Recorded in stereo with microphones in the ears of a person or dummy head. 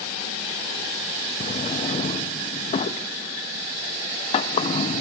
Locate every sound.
1.4 s a drawer: 35° left (ahead or behind), 0.7 m